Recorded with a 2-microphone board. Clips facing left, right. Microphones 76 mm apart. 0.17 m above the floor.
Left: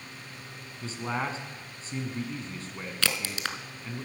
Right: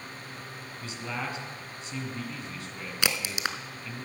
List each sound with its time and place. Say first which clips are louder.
0.8 s a man speaking: left 4 dB; 35° left (ahead or behind), 1.2 m
3.0 s a crack: right 1 dB; 15° right (ahead or behind), 0.6 m